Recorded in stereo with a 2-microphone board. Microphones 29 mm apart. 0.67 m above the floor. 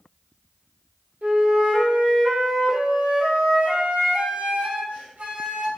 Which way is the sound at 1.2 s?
70° right (ahead or behind).